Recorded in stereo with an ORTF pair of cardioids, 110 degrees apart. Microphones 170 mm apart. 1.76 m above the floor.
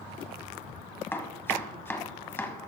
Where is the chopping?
15° left, 1.2 m.